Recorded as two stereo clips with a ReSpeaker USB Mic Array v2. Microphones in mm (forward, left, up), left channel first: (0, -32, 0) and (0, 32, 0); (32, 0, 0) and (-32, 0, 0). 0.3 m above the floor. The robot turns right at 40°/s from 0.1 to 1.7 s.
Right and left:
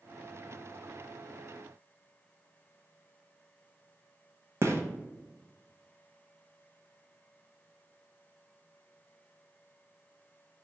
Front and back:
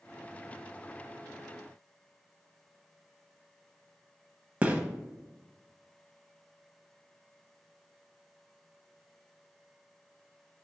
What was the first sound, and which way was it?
A gunshot, 115° left.